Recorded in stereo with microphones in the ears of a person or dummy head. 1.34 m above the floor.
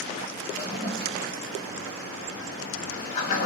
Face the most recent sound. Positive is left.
turn(degrees=40)  # may be behind; listen again after turning